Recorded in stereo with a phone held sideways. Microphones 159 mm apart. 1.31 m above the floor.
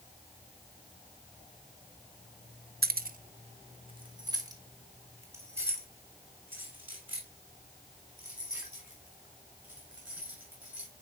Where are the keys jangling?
75° right (ahead or behind), 0.5 m; by 10.9 s 5° right (ahead or behind), 6.5 m.